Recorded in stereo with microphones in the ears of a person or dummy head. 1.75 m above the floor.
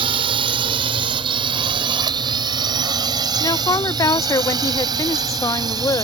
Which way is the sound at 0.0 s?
30° right (ahead or behind).